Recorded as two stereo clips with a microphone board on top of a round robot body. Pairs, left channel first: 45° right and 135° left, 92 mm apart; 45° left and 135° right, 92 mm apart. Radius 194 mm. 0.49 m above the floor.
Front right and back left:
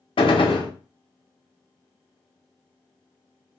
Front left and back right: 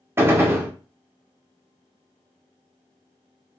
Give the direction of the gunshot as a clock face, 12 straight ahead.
2 o'clock.